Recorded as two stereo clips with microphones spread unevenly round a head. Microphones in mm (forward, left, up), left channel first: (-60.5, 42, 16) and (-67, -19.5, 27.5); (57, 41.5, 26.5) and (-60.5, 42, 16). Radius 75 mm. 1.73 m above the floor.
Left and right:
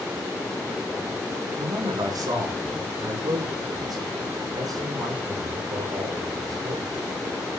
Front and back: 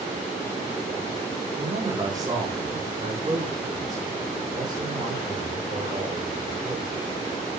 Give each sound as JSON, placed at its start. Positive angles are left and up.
{"t": 1.6, "sound": "a man speaking", "azimuth_deg": -110, "distance_m": 5.0}